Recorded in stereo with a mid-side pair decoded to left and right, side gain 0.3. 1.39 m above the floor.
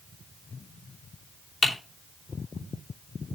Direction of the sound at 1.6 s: 45° left.